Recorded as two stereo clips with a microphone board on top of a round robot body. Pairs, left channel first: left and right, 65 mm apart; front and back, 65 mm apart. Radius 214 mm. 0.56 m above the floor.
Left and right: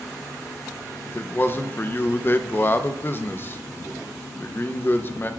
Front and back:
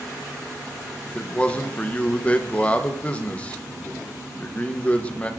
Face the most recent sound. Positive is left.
turn(degrees=60)